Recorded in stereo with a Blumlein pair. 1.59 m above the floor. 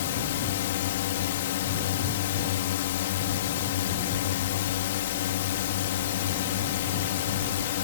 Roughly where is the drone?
Ahead left.